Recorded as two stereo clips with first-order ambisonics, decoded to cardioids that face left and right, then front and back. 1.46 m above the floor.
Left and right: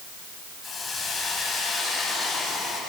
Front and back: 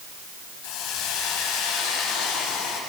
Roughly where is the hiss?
Ahead.